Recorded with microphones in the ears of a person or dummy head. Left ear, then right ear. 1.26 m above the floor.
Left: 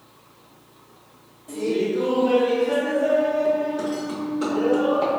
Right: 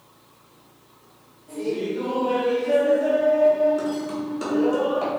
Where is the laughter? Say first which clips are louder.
Left 3 dB; 45° left (ahead or behind), 1.0 m; by 5.1 s 65° right (ahead or behind), 2.0 m.